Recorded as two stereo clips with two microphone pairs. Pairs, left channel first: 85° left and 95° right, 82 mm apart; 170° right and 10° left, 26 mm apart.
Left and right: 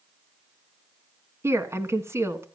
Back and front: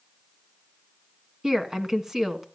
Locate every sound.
1.4 s a woman speaking: 55° right, 1.5 m